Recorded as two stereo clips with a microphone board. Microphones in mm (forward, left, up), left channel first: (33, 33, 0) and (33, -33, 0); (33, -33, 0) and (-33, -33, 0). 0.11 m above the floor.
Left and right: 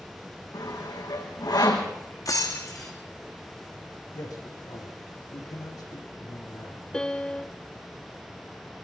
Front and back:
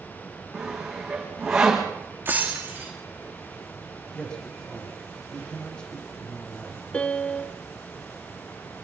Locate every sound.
0.5 s sawing: 100° left, 5 m
2.2 s breaking glass: 120° left, 3.5 m
4.1 s a man speaking: 75° left, 6.5 m
6.9 s a piano: 35° left, 0.6 m